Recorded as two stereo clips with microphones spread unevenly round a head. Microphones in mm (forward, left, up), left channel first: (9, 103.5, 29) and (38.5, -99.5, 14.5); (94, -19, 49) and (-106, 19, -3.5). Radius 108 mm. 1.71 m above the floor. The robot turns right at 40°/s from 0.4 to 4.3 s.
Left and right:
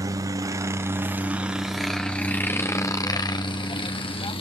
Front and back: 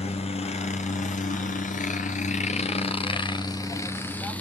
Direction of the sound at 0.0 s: 55° right.